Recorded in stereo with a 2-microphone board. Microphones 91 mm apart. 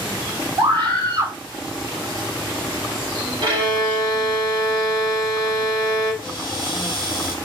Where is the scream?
65° right (ahead or behind), 3 m.